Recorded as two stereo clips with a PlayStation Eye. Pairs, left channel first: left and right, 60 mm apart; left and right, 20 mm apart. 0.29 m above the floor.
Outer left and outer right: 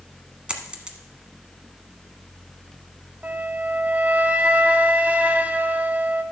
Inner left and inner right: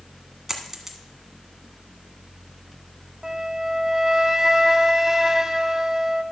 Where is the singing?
I don't hear singing.